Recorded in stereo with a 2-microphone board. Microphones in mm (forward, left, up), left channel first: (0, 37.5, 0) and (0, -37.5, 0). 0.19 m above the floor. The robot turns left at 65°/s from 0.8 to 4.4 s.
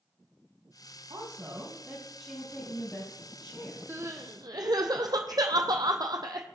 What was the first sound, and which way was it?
A woman speaking, 105° right.